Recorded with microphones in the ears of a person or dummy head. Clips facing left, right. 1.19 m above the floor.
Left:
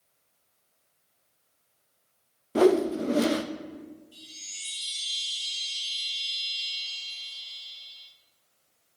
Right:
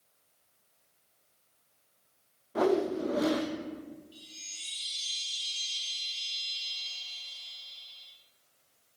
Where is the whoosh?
30° left (ahead or behind), 0.5 m.